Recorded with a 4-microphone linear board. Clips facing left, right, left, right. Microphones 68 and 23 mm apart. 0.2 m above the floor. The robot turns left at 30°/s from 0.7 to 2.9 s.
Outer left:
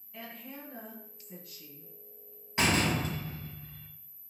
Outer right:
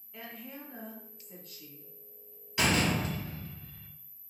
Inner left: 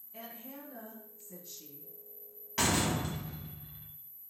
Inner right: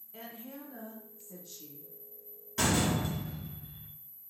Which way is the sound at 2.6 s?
35° left (ahead or behind).